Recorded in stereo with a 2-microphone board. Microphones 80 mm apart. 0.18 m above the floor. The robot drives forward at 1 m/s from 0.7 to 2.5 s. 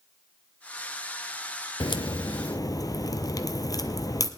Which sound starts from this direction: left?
A crack, at 1.8 s.